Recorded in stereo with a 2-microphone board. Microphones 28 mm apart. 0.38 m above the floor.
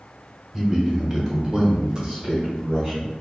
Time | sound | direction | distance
0.5 | a man speaking | 5° right (ahead or behind) | 1.7 m